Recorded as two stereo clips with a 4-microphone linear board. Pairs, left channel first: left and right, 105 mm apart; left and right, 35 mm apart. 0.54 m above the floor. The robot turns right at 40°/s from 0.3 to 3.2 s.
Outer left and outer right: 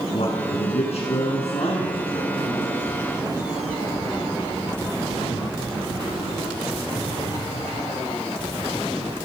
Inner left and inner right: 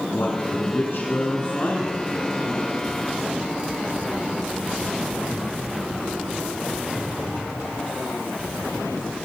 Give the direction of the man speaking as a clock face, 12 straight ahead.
10 o'clock.